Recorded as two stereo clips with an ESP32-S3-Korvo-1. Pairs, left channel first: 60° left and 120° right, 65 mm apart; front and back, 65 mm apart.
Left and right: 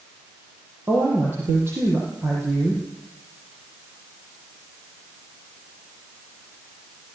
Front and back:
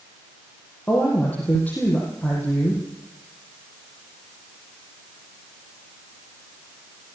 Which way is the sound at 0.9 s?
65° right.